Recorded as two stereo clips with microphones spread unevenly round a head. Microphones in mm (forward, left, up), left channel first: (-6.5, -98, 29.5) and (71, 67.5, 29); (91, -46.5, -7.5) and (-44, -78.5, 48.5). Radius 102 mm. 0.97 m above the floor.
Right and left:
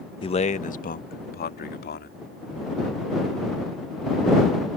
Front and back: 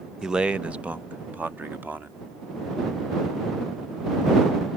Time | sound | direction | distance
0.2 | a man speaking | 60° right | ?